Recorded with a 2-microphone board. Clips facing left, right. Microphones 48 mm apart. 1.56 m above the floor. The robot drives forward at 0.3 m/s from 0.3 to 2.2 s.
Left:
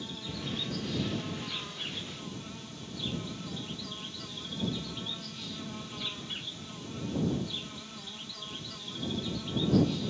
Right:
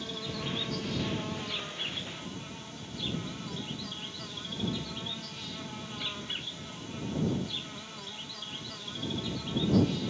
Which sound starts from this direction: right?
An insect, at 0.0 s.